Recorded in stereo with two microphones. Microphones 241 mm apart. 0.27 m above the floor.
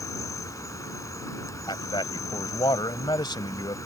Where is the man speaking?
20° left (ahead or behind).